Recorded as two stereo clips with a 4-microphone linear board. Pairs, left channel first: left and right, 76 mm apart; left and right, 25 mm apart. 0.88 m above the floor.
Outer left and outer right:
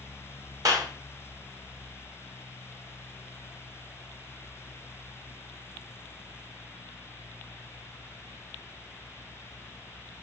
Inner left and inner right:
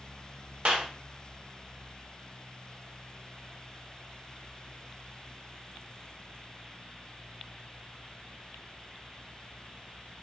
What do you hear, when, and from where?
0.7 s a clap: 50° right (ahead or behind), 1.2 m